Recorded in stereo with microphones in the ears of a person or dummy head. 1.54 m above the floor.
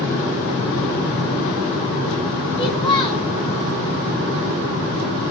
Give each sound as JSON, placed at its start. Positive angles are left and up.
{"t": 2.6, "sound": "a child speaking", "side_deg": 25, "distance_m": 3.0}